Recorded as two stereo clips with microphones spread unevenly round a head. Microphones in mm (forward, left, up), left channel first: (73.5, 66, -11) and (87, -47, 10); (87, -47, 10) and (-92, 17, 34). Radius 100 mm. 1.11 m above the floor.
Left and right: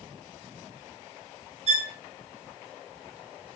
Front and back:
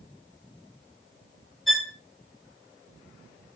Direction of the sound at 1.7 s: 115° right.